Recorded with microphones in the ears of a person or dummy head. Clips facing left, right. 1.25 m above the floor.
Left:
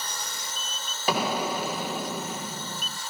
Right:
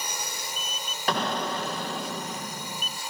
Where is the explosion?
5° left (ahead or behind).